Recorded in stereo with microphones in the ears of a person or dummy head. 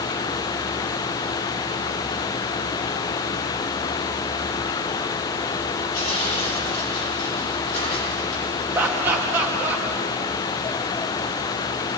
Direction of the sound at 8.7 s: 10° right (ahead or behind).